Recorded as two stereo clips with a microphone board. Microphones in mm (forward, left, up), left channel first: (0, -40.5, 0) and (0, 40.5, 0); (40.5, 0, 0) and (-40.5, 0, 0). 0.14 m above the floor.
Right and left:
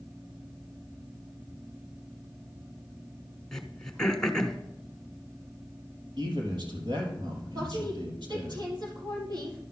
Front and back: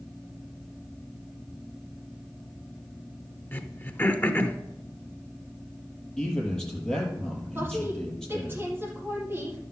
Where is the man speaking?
80° left, 4 m.